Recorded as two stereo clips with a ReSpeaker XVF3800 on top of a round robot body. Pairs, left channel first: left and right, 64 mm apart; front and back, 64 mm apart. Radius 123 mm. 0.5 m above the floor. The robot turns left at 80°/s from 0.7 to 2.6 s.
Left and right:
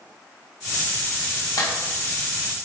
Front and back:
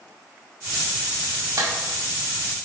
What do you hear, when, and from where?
1.6 s a clap: 130° left, 2.5 m; by 1.7 s 120° left, 2.5 m